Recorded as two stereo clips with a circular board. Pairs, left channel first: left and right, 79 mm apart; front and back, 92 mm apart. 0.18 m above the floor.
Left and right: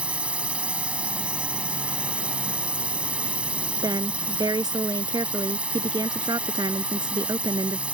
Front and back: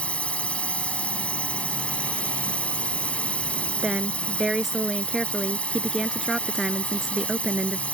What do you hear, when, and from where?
0.0 s a drone: 45° right
3.8 s a woman speaking: 95° right